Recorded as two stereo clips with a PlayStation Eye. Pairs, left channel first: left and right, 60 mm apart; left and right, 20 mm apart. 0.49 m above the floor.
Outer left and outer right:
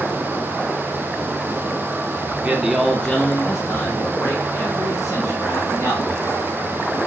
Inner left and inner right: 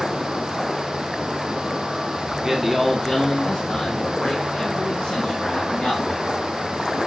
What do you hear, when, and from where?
2.2 s a man speaking: 30° right (ahead or behind), 0.9 m; by 6.2 s 75° left (ahead or behind), 2.5 m